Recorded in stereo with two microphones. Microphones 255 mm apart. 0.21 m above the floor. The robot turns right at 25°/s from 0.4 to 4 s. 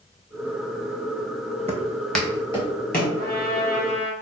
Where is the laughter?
I don't hear laughter.